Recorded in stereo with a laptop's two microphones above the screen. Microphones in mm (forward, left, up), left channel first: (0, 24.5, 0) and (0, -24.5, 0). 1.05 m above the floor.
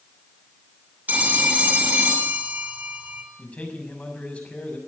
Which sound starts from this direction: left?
A man speaking, at 3.4 s.